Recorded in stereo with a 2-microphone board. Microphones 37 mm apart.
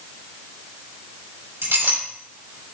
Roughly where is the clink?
Right.